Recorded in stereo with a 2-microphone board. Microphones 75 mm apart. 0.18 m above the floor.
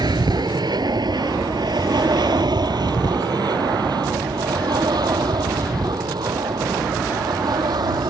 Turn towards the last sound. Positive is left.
turn(degrees=-60)  # may be behind; listen again after turning